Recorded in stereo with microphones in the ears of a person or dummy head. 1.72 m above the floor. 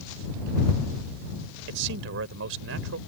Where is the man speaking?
70° right (ahead or behind); by 3.0 s 75° right (ahead or behind).